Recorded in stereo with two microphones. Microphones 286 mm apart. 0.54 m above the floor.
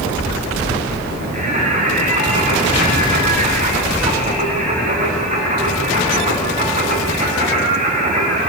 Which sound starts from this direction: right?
Singing, at 1.3 s.